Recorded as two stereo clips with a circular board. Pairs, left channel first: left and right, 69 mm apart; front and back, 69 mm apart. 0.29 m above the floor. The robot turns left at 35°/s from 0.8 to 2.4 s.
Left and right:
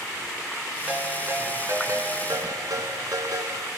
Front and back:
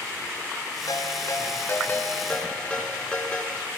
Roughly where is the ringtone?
Ahead.